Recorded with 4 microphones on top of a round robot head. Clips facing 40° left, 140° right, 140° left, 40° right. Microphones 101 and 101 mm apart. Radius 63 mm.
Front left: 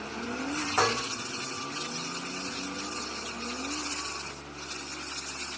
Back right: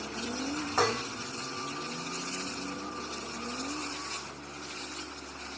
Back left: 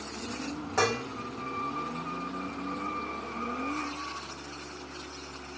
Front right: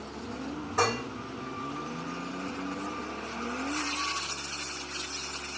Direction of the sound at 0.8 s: 130° left.